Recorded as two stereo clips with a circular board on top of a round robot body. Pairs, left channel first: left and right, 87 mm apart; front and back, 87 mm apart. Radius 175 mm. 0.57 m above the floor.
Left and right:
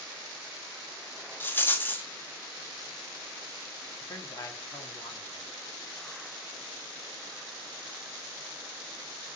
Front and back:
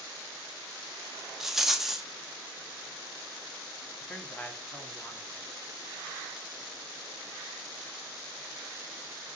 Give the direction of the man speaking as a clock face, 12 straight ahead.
10 o'clock.